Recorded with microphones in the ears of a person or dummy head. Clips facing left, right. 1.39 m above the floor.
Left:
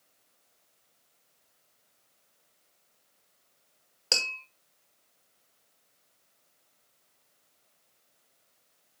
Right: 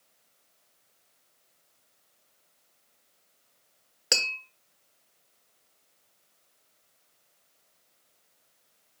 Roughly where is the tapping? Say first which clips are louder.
Right 3 dB; centre.